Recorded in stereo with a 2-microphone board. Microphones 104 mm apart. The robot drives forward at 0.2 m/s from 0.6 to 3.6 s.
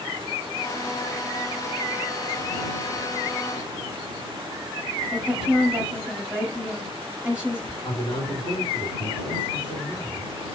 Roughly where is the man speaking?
Left.